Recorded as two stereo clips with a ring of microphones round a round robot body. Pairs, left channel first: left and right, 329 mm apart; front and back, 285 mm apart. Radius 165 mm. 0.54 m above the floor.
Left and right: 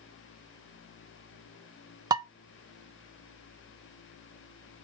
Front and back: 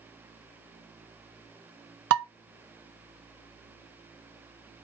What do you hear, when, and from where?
2.1 s dishes clattering: 165° right, 0.5 m